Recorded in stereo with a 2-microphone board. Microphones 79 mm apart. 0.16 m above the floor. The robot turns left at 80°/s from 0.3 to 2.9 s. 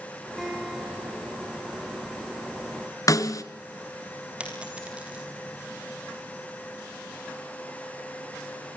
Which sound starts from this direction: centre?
A dropped coin, at 4.4 s.